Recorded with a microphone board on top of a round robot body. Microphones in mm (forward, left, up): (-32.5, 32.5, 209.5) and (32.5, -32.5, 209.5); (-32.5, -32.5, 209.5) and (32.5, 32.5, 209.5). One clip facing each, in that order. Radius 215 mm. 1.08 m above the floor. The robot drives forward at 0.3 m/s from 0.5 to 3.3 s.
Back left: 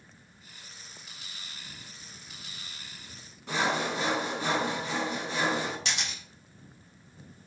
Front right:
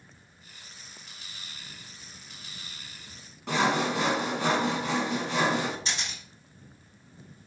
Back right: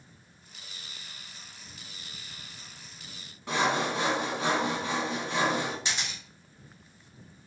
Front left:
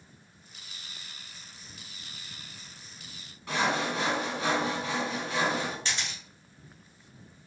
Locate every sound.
3.5 s sawing: 65° right, 0.7 m
5.8 s a camera shutter: 150° left, 0.7 m